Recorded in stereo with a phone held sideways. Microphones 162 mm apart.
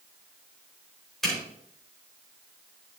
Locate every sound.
1.2 s a zipper: centre (ahead or behind), 5.5 m